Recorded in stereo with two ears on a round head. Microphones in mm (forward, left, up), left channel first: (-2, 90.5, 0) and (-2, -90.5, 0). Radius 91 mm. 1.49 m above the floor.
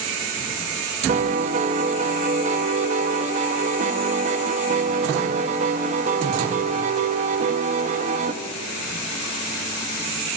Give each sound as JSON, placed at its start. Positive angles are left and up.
{"t": 1.1, "sound": "a piano", "side_deg": -35, "distance_m": 1.0}